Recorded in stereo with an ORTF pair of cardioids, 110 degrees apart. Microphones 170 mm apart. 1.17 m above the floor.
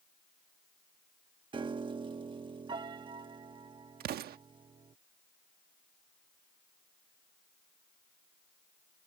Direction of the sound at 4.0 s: 65° right.